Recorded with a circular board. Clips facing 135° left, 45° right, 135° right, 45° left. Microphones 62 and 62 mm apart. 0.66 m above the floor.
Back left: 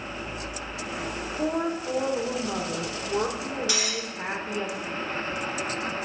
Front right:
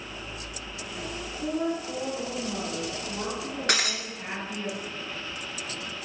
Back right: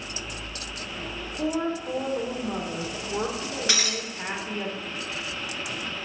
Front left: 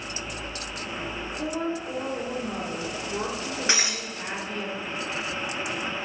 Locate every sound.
1.4 s a woman speaking: 160° left, 1.6 m
3.7 s breaking glass: 20° right, 1.1 m